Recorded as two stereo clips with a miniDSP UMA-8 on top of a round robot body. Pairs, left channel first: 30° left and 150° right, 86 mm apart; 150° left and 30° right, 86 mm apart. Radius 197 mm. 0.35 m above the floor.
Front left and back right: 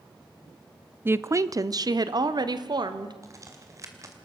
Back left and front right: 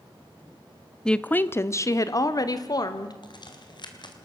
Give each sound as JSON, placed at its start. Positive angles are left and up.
{"t": 1.1, "sound": "a woman speaking", "azimuth_deg": -140, "distance_m": 0.9}
{"t": 3.2, "sound": "a crack", "azimuth_deg": 165, "distance_m": 2.5}